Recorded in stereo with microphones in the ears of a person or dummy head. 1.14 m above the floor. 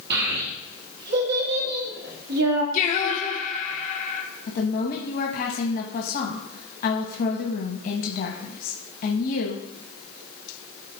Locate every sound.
0.1 s a child speaking: 65° right (ahead or behind), 1.5 m
2.7 s singing: 45° left (ahead or behind), 1.4 m
4.5 s a woman speaking: 45° left (ahead or behind), 1.0 m